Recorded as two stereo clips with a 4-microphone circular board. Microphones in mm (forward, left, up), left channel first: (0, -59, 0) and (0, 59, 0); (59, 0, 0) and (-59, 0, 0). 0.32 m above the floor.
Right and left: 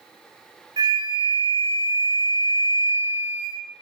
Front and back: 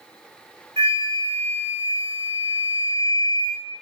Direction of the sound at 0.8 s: 135° left.